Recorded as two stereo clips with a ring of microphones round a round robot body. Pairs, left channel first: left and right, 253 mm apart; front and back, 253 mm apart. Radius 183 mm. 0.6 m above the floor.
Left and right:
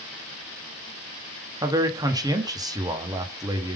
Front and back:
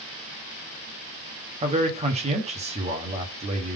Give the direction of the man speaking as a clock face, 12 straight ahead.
5 o'clock.